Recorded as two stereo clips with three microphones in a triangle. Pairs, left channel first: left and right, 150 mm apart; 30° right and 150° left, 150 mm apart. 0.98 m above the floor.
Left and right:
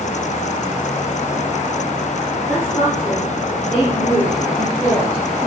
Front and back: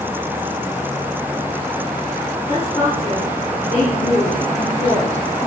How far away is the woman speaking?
About 3 m.